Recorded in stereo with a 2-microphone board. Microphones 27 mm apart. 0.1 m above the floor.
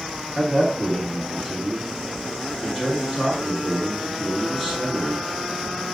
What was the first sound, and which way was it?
A man speaking, 5° left (ahead or behind).